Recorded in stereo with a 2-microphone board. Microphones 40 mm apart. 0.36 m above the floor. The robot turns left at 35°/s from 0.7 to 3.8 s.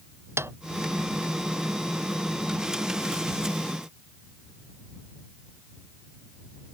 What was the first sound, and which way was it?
A snare drum, 85° right.